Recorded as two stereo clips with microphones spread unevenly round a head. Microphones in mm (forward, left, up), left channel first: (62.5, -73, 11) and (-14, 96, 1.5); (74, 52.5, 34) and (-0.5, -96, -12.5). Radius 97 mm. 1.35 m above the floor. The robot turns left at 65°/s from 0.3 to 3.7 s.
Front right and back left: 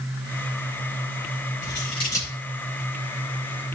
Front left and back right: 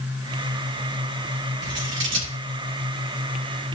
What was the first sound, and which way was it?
Scissors, 105° right.